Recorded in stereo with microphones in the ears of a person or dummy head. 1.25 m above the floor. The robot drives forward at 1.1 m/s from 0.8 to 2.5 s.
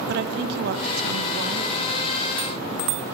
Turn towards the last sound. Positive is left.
turn(degrees=-15)  # may be behind; listen again after turning